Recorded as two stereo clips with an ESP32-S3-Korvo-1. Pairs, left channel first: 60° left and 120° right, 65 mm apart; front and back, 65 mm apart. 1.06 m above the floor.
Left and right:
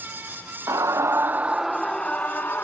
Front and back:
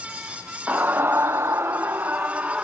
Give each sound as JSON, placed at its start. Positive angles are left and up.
{"t": 0.7, "sound": "a scream", "azimuth_deg": -120}